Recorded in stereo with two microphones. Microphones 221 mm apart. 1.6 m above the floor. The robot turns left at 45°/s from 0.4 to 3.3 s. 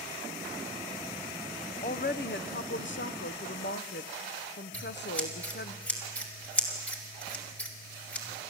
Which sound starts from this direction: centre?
Scissors, at 4.7 s.